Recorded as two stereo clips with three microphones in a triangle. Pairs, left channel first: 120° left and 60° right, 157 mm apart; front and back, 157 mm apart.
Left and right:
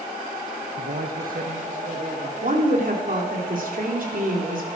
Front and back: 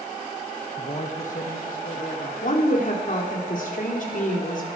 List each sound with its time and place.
0.8 s a man speaking: 50° right, 0.9 m; by 2.3 s 25° right, 2.5 m
2.4 s a woman speaking: 30° right, 3.5 m